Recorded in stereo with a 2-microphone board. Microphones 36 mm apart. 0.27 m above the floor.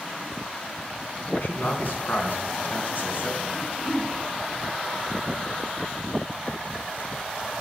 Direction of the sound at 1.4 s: 65° left (ahead or behind).